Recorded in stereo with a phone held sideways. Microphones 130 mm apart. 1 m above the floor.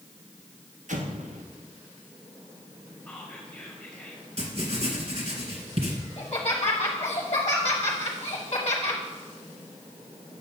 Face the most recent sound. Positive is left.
turn(degrees=35)  # may be behind; listen again after turning